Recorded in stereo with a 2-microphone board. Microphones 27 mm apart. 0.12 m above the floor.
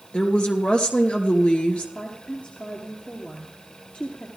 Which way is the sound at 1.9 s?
60° left (ahead or behind).